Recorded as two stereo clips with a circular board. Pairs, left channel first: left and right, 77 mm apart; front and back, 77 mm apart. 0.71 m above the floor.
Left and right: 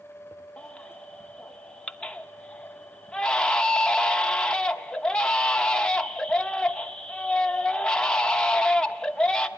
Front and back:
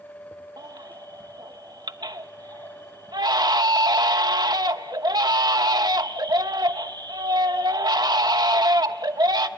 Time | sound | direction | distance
0.6 | a baby crying | 165° left | 1.0 m